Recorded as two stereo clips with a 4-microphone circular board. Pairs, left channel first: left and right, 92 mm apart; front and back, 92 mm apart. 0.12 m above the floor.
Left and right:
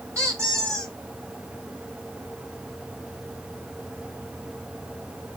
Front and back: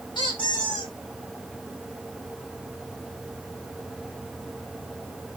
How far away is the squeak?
About 7.5 m.